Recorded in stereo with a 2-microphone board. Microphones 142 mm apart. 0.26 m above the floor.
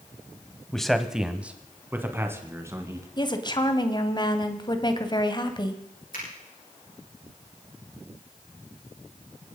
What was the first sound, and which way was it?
A man speaking, 5° left (ahead or behind).